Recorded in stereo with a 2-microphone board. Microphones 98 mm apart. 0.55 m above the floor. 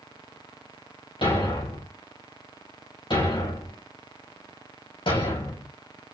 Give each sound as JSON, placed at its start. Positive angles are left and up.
{"t": 1.2, "sound": "a thud", "side_deg": 55, "distance_m": 5.0}